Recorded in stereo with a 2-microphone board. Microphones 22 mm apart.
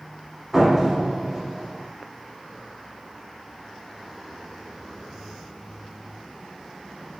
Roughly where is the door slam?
Centre.